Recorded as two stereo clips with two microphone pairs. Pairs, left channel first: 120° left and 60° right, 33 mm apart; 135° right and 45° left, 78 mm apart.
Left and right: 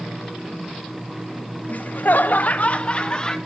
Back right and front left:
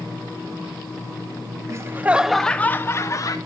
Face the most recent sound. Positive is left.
turn(degrees=-175)